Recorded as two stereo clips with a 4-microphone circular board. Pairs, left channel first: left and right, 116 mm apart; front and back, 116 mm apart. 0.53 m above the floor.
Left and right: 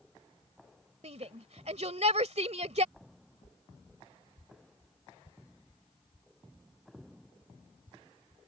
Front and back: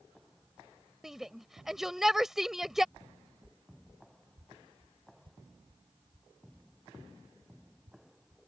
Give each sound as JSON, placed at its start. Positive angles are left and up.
{"t": 1.0, "sound": "a shout", "azimuth_deg": -95}
{"t": 3.0, "sound": "footsteps", "azimuth_deg": 115}